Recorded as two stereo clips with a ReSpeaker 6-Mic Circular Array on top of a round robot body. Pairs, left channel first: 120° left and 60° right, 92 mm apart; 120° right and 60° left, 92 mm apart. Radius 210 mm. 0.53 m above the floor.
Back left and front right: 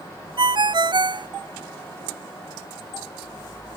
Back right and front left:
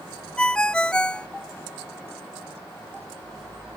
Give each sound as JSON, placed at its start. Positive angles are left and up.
{"t": 0.4, "sound": "a ringtone", "azimuth_deg": -40}